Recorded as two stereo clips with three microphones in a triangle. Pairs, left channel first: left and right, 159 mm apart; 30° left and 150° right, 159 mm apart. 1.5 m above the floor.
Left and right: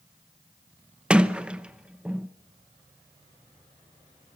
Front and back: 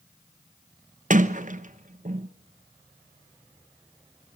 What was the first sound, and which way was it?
A sliding door, 170° right.